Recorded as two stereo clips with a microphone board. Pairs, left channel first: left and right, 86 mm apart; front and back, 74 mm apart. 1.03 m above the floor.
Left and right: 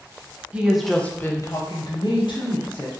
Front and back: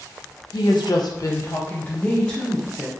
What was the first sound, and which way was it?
A woman speaking, 15° right.